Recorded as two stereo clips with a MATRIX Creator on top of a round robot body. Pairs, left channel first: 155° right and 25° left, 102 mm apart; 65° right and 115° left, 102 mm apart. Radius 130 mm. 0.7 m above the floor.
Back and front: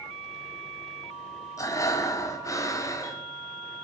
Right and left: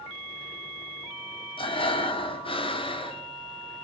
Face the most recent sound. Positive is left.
turn(degrees=-100)